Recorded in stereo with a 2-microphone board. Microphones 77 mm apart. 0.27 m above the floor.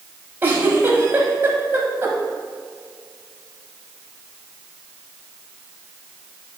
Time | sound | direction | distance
0.4 | a giggle | 25° right (ahead or behind) | 1.3 m